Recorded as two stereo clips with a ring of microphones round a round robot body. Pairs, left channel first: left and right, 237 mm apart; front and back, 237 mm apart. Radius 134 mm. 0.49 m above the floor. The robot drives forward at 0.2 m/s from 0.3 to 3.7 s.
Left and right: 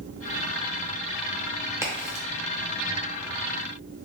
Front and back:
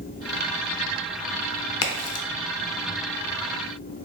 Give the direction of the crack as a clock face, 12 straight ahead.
12 o'clock.